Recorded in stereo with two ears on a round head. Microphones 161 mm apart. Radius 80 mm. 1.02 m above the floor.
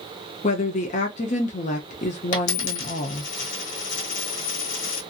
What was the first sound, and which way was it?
A woman speaking, 40° left (ahead or behind).